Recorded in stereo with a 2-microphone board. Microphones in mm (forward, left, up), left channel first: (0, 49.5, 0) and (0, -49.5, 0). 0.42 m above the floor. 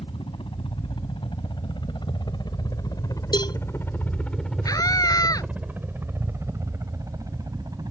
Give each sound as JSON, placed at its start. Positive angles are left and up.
{"t": 0.0, "sound": "a helicopter", "side_deg": 60}
{"t": 3.3, "sound": "a cowbell", "side_deg": 45}
{"t": 4.7, "sound": "a scream", "side_deg": 35}